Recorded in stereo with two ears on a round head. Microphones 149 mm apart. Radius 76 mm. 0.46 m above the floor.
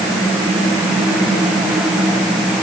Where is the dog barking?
I don't hear a dog barking.